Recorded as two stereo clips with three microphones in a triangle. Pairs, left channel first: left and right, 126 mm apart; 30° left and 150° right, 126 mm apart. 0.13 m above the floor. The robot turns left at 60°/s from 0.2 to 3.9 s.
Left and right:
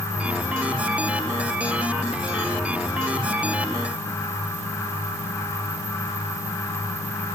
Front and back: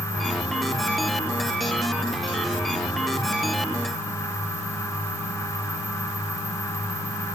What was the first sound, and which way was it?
Only background noise.